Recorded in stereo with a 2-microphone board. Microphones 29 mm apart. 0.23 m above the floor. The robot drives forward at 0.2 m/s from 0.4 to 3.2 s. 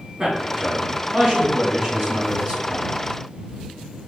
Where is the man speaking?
30° right (ahead or behind), 2 m; by 2.9 s 35° right (ahead or behind), 1.9 m.